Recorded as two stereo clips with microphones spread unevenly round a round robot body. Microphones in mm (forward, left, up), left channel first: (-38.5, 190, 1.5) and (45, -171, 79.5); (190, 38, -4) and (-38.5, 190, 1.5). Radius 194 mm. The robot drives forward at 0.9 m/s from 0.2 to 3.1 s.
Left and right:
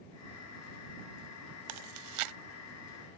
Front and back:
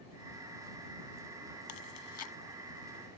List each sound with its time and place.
1.7 s chewing: 55° right; by 2.3 s 100° right